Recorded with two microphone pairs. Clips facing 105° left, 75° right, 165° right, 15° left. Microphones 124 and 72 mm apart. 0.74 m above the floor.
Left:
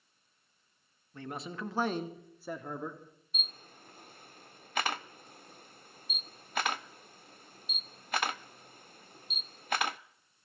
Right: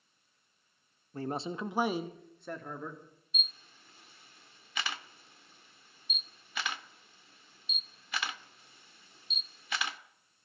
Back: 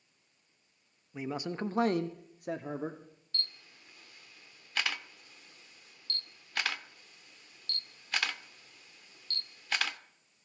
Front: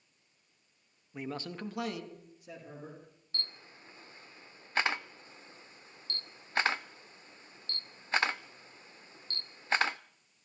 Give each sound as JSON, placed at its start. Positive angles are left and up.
{"t": 1.1, "sound": "a man speaking", "azimuth_deg": -75, "distance_m": 1.1}
{"t": 3.3, "sound": "a camera shutter", "azimuth_deg": 70, "distance_m": 0.5}